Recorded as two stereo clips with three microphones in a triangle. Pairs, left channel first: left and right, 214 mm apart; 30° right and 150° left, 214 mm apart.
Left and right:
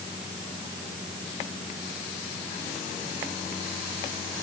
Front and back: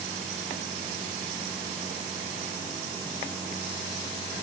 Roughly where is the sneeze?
No sneeze in this recording.